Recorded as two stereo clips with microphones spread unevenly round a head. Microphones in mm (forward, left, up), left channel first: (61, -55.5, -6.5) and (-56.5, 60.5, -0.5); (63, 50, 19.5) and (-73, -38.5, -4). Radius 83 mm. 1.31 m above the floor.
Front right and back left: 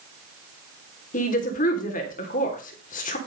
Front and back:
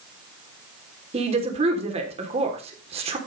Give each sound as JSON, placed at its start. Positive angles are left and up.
{"t": 1.1, "sound": "a woman speaking", "azimuth_deg": -90, "distance_m": 3.0}